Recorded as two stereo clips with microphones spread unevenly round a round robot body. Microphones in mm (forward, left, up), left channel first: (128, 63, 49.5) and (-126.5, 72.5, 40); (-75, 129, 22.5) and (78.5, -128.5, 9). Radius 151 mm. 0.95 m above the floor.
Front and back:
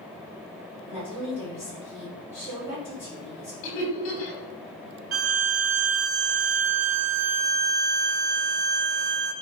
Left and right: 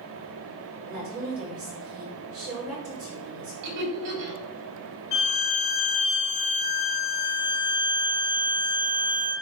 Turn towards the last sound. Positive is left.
turn(degrees=160)